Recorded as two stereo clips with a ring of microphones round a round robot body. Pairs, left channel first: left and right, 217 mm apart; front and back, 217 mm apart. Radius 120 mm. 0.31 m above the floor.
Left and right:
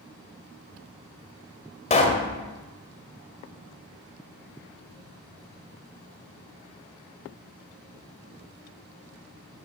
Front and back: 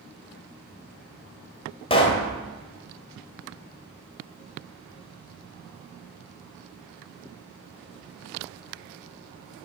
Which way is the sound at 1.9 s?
50° left.